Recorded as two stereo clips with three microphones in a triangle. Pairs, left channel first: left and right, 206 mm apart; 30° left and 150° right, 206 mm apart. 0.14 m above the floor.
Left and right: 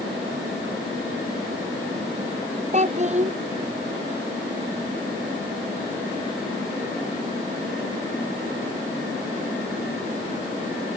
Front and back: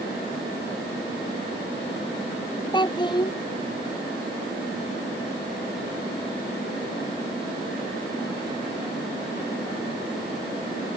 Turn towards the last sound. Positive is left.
turn(degrees=-35)